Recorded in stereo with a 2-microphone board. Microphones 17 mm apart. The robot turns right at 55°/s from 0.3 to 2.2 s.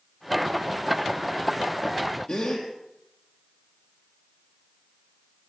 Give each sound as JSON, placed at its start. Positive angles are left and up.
{"t": 2.3, "sound": "a gasp", "side_deg": 70, "distance_m": 5.0}